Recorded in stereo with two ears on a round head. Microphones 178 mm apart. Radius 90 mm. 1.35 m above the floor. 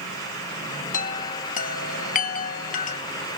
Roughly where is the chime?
Left.